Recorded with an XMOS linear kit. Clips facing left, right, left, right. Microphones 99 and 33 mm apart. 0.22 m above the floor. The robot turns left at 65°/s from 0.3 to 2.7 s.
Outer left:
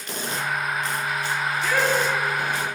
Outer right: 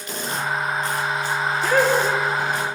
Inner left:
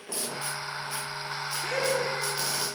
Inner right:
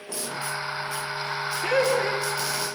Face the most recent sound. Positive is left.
turn(degrees=-120)